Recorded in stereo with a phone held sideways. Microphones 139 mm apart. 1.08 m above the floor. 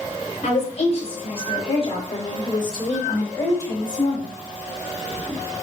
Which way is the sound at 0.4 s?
55° left (ahead or behind).